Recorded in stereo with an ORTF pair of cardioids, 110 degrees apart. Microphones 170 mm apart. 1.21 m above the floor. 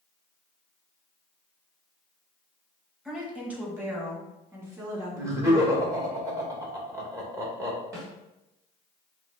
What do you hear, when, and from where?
3.0 s a woman speaking: 5° right, 1.5 m; by 5.8 s 20° right, 3 m
5.2 s laughter: 20° right, 1.9 m
7.9 s a snare drum: 20° right, 2 m